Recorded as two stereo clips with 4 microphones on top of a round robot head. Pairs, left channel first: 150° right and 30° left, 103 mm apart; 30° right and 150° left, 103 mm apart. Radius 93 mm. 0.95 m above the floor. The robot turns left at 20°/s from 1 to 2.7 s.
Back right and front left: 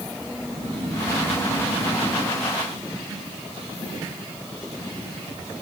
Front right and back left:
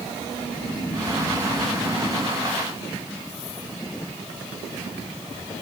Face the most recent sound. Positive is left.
turn(degrees=-60)